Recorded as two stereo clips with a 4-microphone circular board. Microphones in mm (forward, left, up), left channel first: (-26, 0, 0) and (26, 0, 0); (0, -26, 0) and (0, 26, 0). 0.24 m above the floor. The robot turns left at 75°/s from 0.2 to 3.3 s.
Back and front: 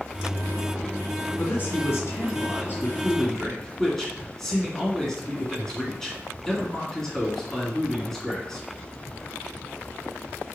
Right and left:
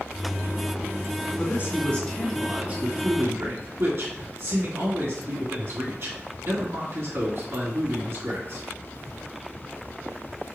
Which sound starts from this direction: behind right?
A man speaking, at 1.4 s.